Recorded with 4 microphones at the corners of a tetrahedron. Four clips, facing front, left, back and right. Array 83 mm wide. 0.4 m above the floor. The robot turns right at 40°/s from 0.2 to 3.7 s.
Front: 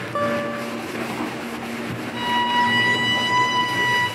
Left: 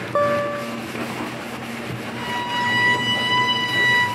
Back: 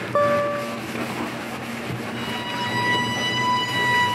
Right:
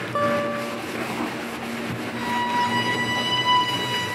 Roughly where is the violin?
Ahead.